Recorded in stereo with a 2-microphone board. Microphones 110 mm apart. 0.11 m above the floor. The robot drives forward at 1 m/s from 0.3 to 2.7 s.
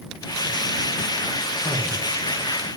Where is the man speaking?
75° left (ahead or behind), 7 m.